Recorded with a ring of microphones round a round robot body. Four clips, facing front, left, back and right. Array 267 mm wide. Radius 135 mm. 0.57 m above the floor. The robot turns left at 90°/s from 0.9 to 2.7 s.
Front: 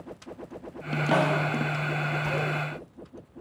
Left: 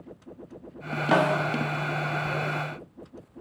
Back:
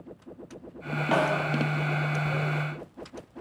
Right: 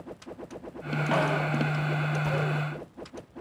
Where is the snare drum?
85° left, 0.6 m; by 1.4 s 55° left, 0.6 m.